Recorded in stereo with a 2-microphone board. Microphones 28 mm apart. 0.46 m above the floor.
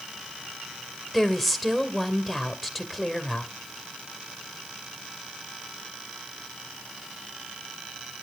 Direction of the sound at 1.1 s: Centre (ahead or behind).